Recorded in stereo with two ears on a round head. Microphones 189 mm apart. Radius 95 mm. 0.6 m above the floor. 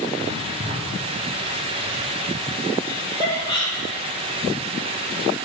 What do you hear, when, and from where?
0.2 s writing: 30° right (ahead or behind), 0.9 m
2.8 s laughter: 25° left (ahead or behind), 3 m